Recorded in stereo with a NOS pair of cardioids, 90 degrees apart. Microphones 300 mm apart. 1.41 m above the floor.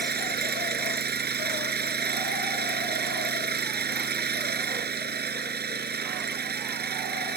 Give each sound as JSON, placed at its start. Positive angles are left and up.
{"t": 0.0, "sound": "an engine running", "azimuth_deg": -30}